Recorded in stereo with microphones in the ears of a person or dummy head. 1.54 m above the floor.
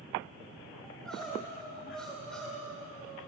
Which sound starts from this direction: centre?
Crying, at 0.8 s.